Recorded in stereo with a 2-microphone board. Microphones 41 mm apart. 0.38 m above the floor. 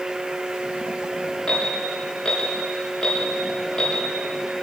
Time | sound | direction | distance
1.5 | an alarm | 20° left (ahead or behind) | 5.5 m